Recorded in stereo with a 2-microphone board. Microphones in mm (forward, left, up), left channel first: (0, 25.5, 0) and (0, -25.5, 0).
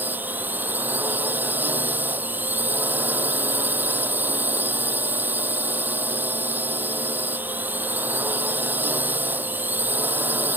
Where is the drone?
40° right (ahead or behind).